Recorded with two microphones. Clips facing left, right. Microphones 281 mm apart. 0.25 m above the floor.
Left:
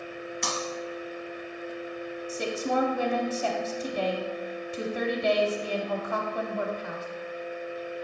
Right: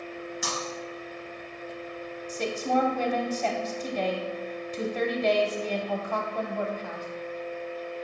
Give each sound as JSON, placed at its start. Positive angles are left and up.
{"t": 0.4, "sound": "breaking glass", "side_deg": 0, "distance_m": 1.9}
{"t": 2.3, "sound": "a woman speaking", "side_deg": 10, "distance_m": 0.9}